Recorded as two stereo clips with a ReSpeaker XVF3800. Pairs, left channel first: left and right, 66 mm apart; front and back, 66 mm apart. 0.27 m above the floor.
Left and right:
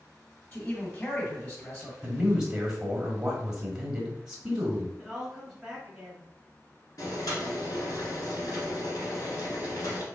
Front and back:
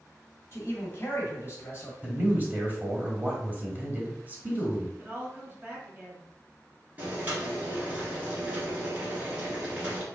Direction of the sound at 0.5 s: 40° left.